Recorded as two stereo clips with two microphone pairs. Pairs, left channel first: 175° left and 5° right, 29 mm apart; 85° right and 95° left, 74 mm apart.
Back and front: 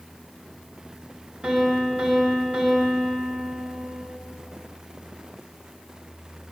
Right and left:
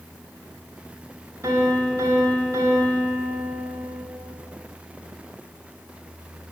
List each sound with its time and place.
1.4 s a piano: 50° left, 2.5 m